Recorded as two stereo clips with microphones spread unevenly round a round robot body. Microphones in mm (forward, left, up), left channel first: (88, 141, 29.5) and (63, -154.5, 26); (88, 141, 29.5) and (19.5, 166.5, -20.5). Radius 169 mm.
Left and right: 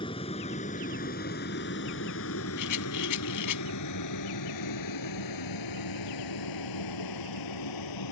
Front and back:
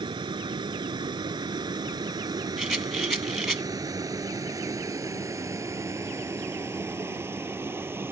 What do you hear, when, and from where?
0.0 s a vehicle: 160° left; by 8.1 s 100° left
2.6 s a rattle: 70° left